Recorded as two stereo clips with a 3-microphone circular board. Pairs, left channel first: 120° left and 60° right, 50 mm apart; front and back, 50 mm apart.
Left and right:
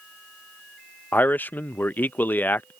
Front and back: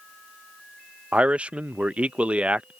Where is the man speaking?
130° left.